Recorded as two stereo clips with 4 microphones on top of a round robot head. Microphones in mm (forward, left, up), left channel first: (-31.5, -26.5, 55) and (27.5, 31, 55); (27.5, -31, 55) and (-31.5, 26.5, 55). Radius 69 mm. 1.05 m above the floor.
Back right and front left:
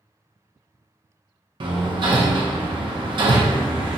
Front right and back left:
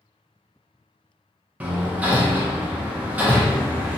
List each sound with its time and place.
1.6 s hammering: 60° left, 0.5 m